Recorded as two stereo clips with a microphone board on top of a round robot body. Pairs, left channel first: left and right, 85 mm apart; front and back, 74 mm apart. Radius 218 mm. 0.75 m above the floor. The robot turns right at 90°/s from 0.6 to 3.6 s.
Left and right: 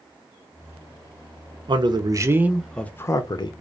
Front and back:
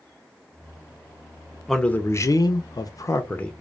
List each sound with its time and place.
1.7 s a man speaking: 85° right, 0.7 m; by 3.5 s 80° left, 0.7 m